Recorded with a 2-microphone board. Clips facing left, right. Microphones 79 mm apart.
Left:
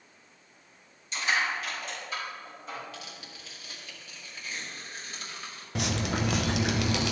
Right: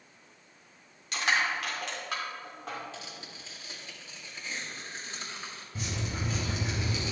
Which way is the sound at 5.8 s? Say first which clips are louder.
Left 7 dB; 65° left (ahead or behind).